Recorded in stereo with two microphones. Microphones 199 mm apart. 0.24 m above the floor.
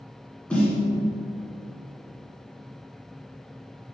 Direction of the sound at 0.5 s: 5° left (ahead or behind).